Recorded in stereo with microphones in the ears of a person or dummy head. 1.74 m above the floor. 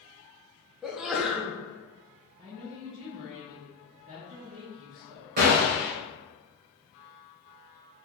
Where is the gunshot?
35° right (ahead or behind), 0.6 m.